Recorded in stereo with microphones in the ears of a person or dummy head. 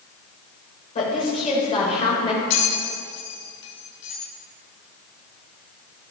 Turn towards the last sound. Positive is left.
turn(degrees=65)  # may be behind; listen again after turning